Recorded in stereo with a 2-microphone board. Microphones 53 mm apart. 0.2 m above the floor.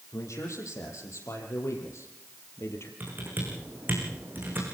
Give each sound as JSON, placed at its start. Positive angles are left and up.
{"t": 0.1, "sound": "a man speaking", "side_deg": 75, "distance_m": 6.5}
{"t": 3.0, "sound": "typing on a keyboard", "side_deg": -40, "distance_m": 6.5}